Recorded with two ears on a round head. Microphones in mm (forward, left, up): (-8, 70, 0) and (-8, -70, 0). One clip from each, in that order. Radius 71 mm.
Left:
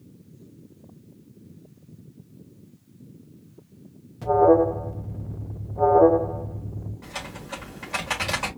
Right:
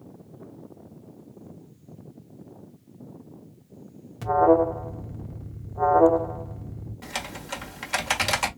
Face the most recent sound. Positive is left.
turn(degrees=-60)  # may be behind; listen again after turning